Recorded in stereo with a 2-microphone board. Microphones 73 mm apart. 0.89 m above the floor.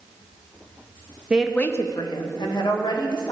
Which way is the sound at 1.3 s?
15° right (ahead or behind).